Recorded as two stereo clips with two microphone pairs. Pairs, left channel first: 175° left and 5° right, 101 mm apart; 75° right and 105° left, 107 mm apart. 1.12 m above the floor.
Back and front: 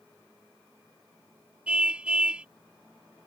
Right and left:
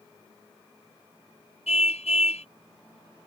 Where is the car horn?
85° right.